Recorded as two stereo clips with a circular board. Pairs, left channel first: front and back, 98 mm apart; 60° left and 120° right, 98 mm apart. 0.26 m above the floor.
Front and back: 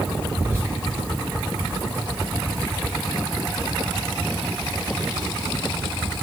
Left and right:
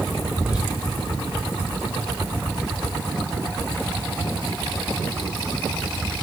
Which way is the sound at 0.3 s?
170° left.